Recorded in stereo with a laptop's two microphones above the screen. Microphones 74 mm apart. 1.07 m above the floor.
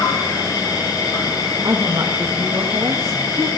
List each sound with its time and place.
0.0 s an insect: 65° left (ahead or behind), 7.5 m
1.6 s a woman speaking: 45° right (ahead or behind), 1.3 m